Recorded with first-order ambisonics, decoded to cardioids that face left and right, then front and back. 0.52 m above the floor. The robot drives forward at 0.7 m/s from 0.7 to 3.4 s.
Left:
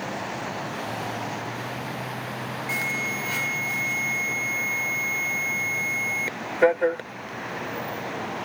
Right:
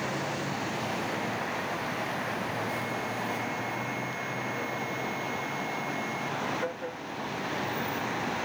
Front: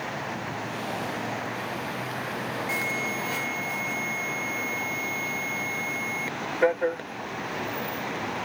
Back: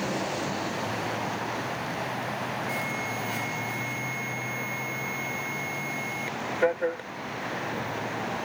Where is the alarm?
65° left; by 8.5 s 80° left.